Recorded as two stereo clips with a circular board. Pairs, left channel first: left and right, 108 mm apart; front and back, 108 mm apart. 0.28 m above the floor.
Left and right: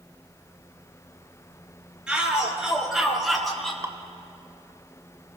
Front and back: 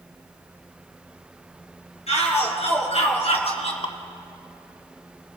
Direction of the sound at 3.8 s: 30° right.